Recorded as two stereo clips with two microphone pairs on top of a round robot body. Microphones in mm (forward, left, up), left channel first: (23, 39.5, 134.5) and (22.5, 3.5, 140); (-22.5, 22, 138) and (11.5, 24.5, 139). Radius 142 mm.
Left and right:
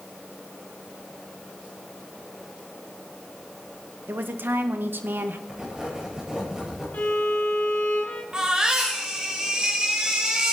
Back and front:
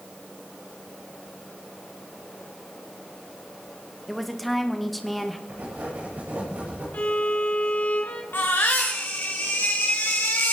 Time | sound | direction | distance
4.1 | a woman speaking | 90° right | 1.6 m
5.5 | writing | 15° right | 8 m
6.9 | a violin | 145° left | 1.1 m
8.3 | a baby crying | 155° right | 1.9 m